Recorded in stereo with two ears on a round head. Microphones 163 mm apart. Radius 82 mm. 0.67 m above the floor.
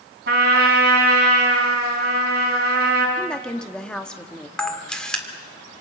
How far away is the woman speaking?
About 1.1 m.